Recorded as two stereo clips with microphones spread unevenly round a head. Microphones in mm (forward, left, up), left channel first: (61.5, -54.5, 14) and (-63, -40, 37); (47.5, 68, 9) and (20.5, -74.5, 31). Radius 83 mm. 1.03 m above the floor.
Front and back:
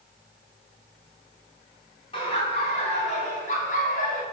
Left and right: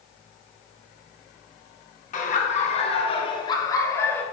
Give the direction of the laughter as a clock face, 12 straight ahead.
10 o'clock.